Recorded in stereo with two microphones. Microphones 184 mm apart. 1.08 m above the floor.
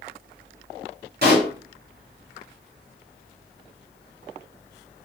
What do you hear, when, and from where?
1.2 s a pop: 60° right (ahead or behind), 2.5 m